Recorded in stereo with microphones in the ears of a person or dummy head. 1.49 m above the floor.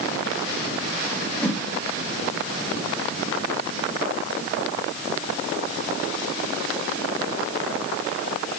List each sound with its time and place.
1.4 s a whoosh: 10° left (ahead or behind), 1.0 m